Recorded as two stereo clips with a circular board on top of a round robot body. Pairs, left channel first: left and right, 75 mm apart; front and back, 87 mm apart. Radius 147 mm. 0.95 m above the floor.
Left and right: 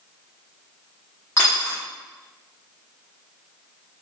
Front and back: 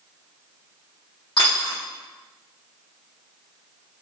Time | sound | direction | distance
1.4 | a dropped coin | 35° left | 0.6 m